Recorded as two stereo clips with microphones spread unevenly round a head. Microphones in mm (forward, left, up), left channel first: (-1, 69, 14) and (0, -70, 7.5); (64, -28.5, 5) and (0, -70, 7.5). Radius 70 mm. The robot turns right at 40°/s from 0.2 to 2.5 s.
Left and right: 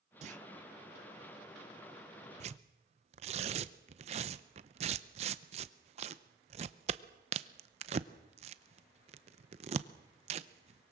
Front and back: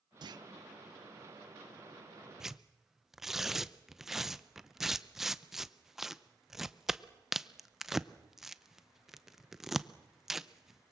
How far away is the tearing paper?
About 0.7 m.